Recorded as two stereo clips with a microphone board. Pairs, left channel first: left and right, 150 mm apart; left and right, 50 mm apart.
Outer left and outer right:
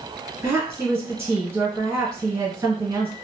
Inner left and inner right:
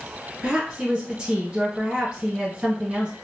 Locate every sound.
0.4 s a woman speaking: 20° right (ahead or behind), 1.4 m